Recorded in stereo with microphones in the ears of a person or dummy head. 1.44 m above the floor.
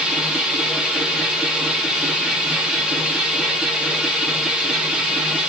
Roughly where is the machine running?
Centre.